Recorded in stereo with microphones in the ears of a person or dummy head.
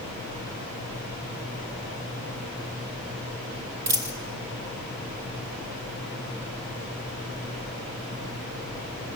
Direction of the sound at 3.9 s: 15° right (ahead or behind).